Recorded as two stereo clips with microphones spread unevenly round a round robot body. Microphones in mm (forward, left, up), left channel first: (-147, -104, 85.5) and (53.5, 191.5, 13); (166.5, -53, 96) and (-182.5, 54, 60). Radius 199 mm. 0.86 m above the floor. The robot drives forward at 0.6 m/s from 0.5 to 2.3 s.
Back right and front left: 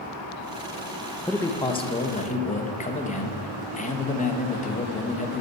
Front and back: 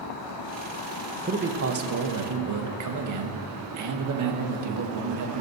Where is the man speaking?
135° left, 0.9 m; by 5.4 s 160° left, 1.2 m.